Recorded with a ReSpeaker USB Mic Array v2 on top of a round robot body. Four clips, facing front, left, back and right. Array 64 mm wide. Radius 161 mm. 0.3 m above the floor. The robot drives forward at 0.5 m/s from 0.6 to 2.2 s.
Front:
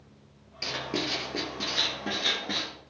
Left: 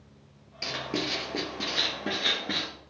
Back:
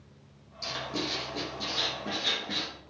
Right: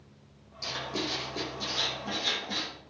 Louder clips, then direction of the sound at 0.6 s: Left 2 dB, front 2 dB; 50° left.